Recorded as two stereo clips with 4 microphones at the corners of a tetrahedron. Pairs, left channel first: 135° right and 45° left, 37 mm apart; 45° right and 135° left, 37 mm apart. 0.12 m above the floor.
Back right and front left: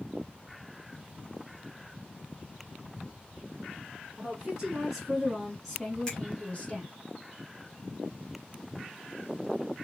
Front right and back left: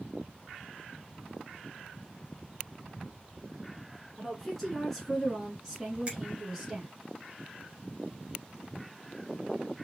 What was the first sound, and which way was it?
A woman speaking, 25° left.